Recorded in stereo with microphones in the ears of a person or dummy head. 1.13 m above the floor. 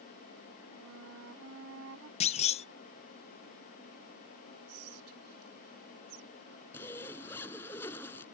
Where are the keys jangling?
I don't hear keys jangling.